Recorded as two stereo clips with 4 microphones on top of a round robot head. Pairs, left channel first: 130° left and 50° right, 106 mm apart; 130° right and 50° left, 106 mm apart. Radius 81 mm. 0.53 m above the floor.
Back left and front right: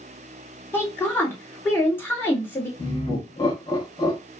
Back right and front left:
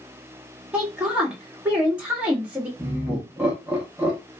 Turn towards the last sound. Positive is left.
turn(degrees=120)